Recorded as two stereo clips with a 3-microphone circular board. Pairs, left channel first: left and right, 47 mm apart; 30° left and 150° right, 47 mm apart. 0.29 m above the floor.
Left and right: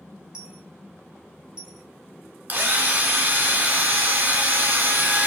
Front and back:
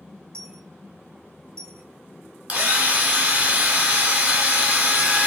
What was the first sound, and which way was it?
A dropped coin, 160° right.